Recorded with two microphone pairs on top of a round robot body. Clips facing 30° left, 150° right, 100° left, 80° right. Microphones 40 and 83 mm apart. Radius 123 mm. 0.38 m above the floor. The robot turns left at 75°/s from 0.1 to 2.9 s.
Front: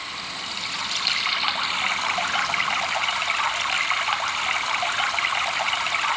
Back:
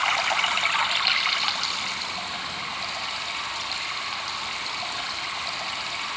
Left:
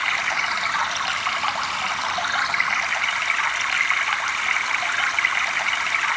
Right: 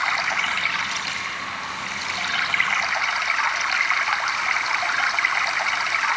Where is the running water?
150° right, 1.4 m; by 6.2 s straight ahead, 1.4 m.